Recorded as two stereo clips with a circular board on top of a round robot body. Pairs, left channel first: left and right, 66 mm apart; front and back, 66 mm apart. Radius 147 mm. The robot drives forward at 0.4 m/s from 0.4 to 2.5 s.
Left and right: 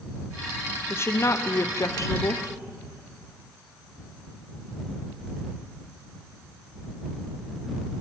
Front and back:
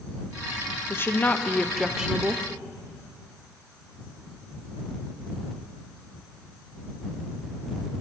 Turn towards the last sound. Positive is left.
turn(degrees=130)